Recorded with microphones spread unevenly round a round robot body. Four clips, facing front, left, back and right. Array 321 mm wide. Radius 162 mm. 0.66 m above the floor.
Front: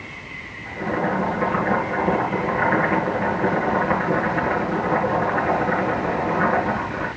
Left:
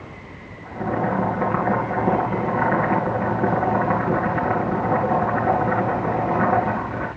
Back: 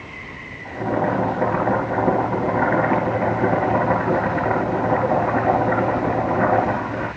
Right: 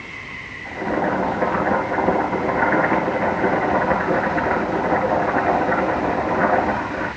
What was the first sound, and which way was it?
Boiling, 135° left.